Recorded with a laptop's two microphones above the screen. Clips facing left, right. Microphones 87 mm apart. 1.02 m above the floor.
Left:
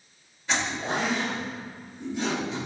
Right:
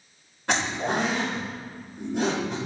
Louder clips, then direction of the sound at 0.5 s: Right 3 dB; 65° right (ahead or behind).